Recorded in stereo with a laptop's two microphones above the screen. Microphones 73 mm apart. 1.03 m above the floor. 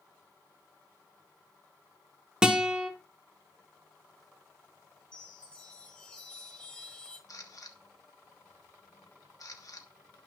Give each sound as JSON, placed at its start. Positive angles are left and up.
{"t": 2.4, "sound": "a guitar", "side_deg": -10, "distance_m": 1.6}
{"t": 5.1, "sound": "a chime", "side_deg": 15, "distance_m": 4.0}
{"t": 7.3, "sound": "a camera shutter", "side_deg": 55, "distance_m": 1.1}